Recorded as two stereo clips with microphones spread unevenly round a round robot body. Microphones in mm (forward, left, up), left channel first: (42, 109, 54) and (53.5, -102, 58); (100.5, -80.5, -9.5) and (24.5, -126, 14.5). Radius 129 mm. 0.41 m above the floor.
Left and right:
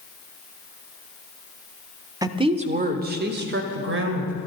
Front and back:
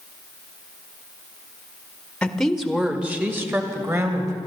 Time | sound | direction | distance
2.2 | a woman speaking | 20° right | 1.3 m